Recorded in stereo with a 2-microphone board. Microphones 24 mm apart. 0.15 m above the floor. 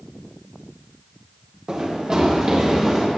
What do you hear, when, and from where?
1.7 s running footsteps: 40° right (ahead or behind), 3.5 m; by 3.1 s 30° right (ahead or behind), 4 m